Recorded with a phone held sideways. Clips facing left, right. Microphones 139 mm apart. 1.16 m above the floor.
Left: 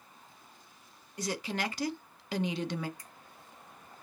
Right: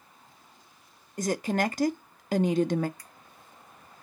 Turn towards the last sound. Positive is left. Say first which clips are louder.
# right 1 dB
turn(degrees=20)  # may be behind; listen again after turning